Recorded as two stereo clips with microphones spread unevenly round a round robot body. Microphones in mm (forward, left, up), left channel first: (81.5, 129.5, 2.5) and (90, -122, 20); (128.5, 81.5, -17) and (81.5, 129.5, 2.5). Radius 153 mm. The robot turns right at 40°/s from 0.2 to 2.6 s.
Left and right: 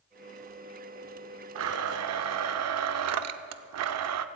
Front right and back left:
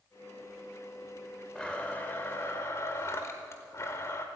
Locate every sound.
1.6 s a blender: 125° right, 0.6 m; by 4.2 s 85° right, 0.6 m